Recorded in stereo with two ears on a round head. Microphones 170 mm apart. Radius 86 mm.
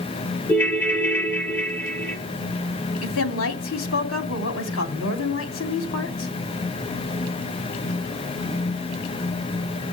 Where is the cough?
I don't hear a cough.